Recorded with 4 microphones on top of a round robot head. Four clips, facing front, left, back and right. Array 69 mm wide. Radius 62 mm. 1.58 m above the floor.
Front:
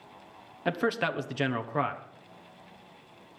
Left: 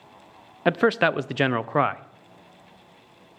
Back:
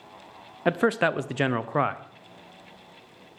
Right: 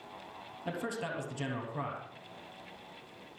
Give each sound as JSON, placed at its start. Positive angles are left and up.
{"t": 0.7, "sound": "a man speaking", "azimuth_deg": 110, "distance_m": 0.7}